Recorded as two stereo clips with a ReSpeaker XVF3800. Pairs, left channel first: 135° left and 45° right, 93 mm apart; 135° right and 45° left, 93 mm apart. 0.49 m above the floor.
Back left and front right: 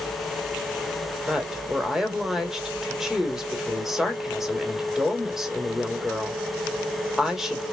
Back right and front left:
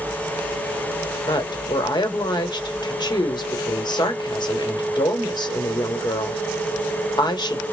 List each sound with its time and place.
1.3 s a woman speaking: 130° right, 1.6 m